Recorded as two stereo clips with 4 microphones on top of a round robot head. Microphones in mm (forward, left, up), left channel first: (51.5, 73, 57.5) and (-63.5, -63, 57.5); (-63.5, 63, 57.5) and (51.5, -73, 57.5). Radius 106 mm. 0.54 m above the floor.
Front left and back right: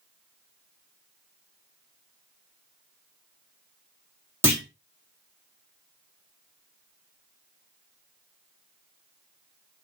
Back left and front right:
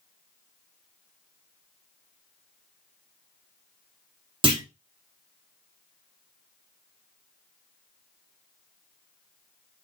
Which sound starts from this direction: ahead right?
A clunk, at 4.4 s.